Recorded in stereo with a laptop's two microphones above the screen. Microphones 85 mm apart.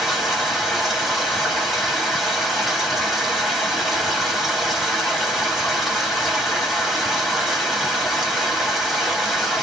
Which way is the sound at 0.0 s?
Centre (ahead or behind).